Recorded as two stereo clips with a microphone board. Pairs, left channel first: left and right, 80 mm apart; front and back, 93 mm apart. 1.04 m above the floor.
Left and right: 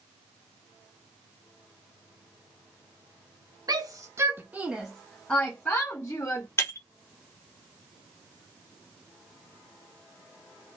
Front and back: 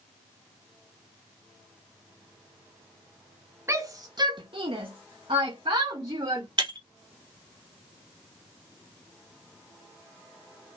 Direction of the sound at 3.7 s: 120° right.